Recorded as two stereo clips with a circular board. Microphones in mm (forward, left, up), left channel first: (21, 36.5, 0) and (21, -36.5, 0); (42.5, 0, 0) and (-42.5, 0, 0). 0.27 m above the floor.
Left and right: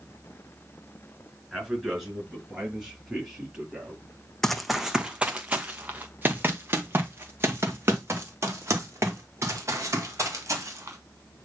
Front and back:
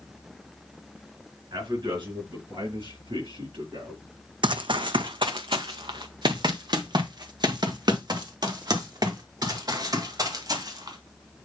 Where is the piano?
I don't hear a piano.